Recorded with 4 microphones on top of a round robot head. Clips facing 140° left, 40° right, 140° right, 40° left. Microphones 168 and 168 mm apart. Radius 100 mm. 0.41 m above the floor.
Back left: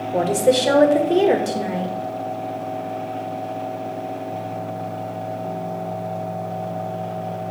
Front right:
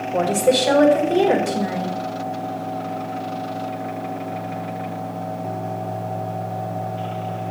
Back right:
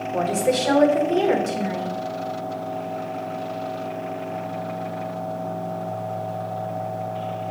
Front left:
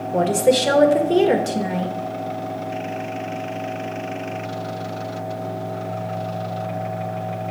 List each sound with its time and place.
0.1 s a woman speaking: 80° left, 1.5 m